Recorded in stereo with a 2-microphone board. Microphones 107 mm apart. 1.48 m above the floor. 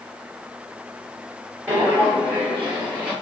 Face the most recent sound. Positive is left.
turn(degrees=-10)  # may be behind; listen again after turning